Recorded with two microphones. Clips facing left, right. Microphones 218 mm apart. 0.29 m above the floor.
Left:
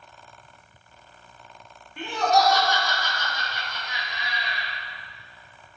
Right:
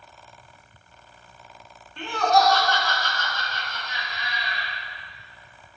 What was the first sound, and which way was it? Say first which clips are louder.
Laughter: right 1 dB; 10° left (ahead or behind).